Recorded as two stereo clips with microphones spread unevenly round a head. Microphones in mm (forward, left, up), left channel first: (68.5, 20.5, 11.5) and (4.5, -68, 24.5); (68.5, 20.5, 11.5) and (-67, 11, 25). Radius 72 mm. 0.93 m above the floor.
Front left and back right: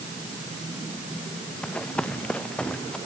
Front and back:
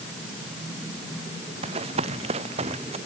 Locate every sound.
1.6 s running footsteps: 140° left